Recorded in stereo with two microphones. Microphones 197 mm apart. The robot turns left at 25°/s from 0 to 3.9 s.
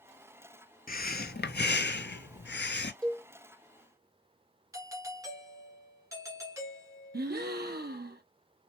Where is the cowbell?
5° left (ahead or behind), 0.9 m; by 3.2 s centre (ahead or behind), 0.9 m.